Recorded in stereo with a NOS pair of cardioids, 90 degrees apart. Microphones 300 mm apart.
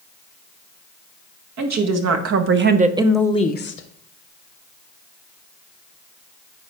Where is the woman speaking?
65° right, 2 m; by 3.9 s 50° left, 1.1 m.